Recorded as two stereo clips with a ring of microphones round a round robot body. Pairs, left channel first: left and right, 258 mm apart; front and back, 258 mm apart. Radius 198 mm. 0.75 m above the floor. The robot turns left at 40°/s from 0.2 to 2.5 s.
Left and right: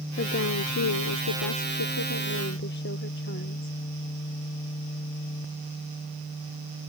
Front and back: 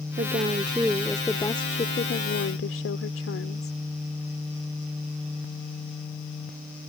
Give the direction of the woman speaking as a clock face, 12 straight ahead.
8 o'clock.